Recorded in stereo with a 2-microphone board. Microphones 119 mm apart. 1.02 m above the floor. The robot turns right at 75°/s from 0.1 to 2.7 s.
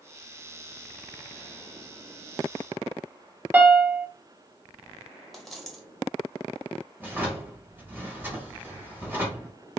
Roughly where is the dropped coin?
Centre.